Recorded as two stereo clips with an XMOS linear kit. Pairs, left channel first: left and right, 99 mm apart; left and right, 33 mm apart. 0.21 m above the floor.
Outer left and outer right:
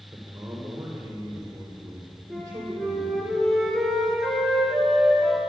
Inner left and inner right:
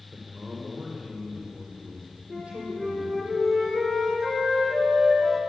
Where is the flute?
5° left (ahead or behind), 3.5 m.